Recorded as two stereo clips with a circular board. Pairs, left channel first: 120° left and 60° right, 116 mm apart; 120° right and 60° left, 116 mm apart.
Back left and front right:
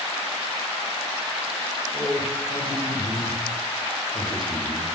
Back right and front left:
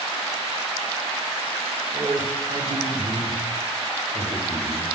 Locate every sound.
1.9 s a man speaking: 95° left, 1.4 m; by 4.9 s 80° left, 2.5 m